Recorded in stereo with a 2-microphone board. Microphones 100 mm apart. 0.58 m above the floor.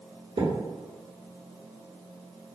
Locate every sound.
0.4 s a thud: 60° right (ahead or behind), 1.5 m